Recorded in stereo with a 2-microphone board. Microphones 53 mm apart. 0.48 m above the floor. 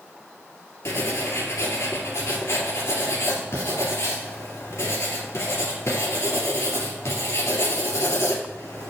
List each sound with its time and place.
0.8 s writing: 65° left (ahead or behind), 2.5 m